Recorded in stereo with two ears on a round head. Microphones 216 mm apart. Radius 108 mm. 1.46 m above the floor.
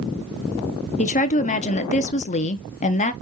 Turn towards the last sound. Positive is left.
turn(degrees=30)  # may be behind; listen again after turning